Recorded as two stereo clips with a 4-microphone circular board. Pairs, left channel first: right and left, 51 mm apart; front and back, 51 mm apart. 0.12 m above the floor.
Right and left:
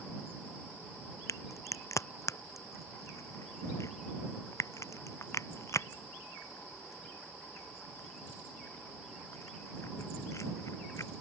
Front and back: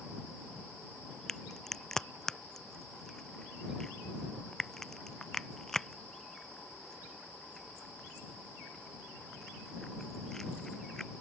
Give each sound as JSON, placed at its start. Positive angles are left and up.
{"t": 1.3, "sound": "a crack", "azimuth_deg": -85}